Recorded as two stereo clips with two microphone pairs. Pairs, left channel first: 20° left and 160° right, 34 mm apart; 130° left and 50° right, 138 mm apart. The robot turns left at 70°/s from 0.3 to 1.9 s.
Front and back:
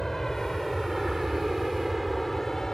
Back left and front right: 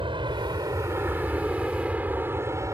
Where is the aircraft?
55° right; by 2.7 s 30° right.